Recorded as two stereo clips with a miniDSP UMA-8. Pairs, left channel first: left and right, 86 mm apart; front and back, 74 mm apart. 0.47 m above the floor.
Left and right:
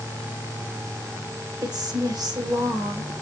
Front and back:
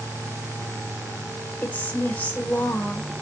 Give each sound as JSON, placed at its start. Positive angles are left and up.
{"t": 1.6, "sound": "a woman speaking", "azimuth_deg": -65, "distance_m": 1.4}